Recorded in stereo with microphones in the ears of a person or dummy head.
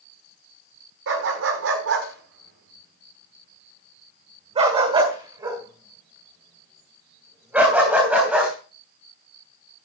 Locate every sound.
1.1 s a dog barking: 70° right (ahead or behind), 1.7 m; by 8.5 s centre (ahead or behind), 4 m